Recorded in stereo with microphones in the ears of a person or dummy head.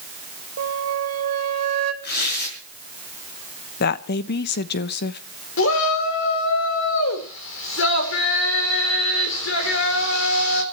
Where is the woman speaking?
55° left (ahead or behind), 0.9 m.